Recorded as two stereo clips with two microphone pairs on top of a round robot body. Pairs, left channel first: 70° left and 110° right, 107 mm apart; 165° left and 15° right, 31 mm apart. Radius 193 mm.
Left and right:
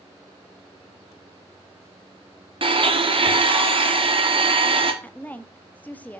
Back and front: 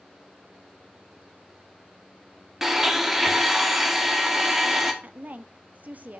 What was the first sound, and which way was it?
A blender, 90° right.